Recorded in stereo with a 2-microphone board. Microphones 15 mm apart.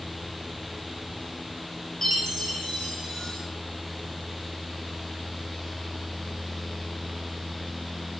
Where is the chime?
15° left (ahead or behind), 1.8 m.